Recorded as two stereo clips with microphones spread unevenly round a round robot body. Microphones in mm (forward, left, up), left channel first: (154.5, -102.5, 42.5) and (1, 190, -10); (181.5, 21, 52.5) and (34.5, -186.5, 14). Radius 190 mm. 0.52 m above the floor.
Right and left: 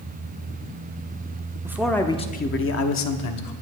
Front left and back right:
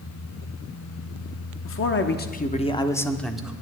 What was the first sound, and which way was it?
A man speaking, 50° left.